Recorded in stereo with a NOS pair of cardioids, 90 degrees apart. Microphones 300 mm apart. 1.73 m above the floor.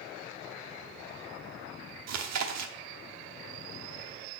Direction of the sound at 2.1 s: 60° right.